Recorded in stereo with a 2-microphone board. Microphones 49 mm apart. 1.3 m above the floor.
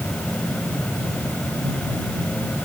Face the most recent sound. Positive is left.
No sound to turn to.